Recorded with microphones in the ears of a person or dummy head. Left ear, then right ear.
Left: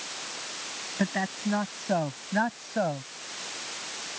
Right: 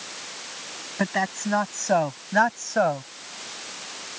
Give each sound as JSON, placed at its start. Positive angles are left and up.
{"t": 1.0, "sound": "a man speaking", "side_deg": -40}